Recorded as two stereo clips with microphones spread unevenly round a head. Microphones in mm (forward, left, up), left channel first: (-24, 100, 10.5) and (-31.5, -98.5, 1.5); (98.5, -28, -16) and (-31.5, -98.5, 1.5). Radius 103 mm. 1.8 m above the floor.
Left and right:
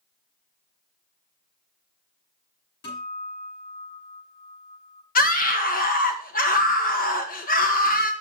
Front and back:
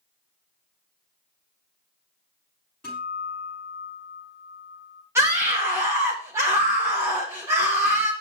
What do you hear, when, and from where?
2.8 s a guitar: 115° left, 7 m
5.2 s a scream: 135° left, 1.5 m